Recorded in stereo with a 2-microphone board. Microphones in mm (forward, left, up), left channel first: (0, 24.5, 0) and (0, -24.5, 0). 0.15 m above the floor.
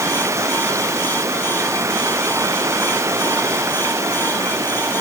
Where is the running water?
80° right.